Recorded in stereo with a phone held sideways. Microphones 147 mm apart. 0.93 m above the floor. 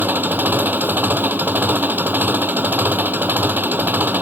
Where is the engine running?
10° right (ahead or behind).